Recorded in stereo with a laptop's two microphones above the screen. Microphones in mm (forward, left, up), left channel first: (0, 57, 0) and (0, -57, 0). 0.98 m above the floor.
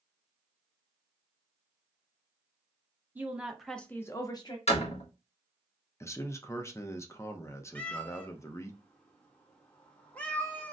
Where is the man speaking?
25° left (ahead or behind), 0.6 m.